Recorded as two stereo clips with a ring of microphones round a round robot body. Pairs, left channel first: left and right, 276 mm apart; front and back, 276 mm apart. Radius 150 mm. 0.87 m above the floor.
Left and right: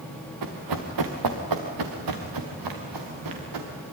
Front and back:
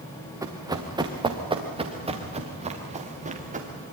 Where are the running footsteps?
100° right, 3.5 m; by 3.7 s 115° right, 5 m.